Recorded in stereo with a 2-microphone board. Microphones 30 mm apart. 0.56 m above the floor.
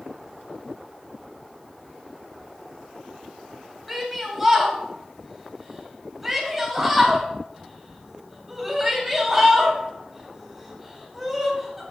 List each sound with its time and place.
3.9 s a shout: 5° right (ahead or behind), 3 m